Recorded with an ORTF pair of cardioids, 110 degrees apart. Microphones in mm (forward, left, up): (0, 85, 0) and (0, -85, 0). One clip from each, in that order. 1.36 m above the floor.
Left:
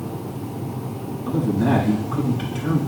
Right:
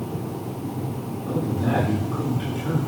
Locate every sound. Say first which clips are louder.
1.3 s a man speaking: left 4 dB; 65° left, 5 m